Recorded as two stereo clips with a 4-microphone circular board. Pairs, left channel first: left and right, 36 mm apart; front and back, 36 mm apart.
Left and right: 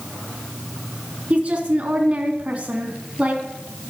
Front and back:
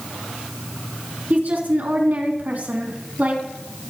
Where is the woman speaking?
145° right, 3 m.